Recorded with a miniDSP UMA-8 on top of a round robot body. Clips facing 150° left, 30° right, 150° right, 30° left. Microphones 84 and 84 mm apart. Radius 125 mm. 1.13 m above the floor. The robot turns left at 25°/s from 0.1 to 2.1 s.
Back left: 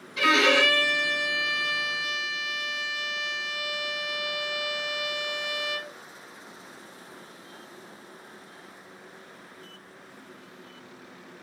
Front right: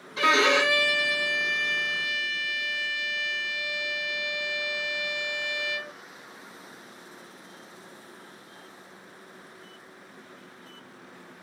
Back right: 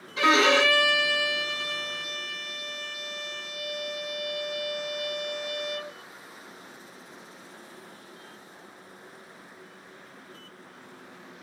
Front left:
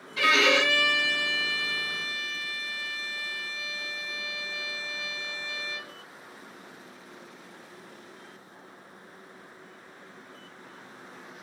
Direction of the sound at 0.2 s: 90° right.